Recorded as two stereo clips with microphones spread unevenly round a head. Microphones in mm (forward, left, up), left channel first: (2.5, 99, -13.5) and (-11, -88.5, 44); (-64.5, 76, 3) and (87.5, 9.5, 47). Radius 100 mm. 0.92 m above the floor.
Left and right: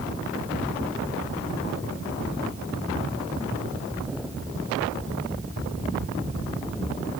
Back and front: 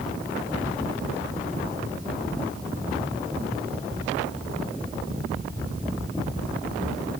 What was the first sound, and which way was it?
Only background noise.